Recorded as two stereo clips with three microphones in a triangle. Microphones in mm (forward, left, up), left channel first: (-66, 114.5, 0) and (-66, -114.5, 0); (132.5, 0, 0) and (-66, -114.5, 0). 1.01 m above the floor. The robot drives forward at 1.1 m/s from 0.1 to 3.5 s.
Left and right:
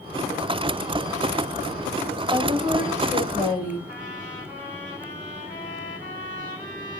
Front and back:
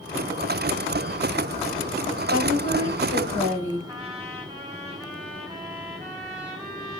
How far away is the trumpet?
About 4 m.